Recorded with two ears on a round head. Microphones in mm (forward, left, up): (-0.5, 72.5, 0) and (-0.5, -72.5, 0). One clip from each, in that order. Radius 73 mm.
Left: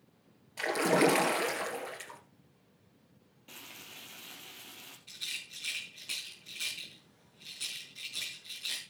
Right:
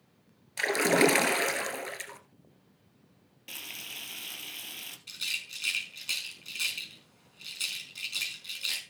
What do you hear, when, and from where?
0.6 s a splash: 35° right (ahead or behind), 1.8 m
3.5 s frying: 80° right, 2 m
5.1 s a rattle: 50° right (ahead or behind), 5 m